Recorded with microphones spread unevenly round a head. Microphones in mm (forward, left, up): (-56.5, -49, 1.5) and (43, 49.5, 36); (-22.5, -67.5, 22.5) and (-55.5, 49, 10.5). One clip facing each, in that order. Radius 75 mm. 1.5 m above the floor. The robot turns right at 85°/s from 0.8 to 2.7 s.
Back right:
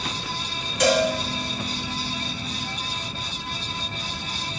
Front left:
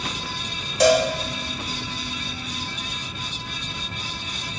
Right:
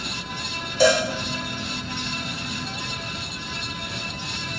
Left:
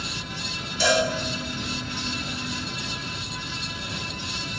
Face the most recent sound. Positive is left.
turn(degrees=145)